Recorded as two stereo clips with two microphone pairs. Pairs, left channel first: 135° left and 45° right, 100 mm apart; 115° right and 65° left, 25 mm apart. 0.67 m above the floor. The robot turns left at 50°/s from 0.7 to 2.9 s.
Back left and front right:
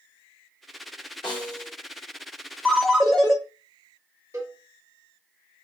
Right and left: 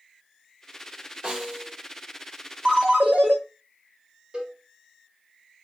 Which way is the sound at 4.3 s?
15° left.